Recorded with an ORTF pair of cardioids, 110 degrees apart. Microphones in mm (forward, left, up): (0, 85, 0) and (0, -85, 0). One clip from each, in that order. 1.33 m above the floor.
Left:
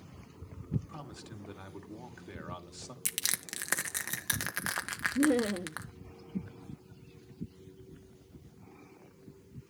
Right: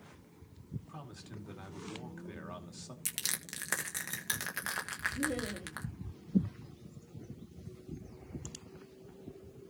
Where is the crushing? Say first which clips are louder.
Left 3 dB; 20° left, 1.7 m.